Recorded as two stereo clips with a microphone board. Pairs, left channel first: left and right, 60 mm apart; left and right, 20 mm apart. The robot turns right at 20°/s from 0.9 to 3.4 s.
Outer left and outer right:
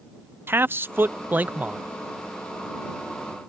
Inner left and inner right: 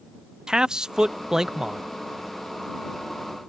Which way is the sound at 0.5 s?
35° right (ahead or behind).